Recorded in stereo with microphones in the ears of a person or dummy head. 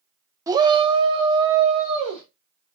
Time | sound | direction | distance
0.5 | a shout | 10° right (ahead or behind) | 0.5 m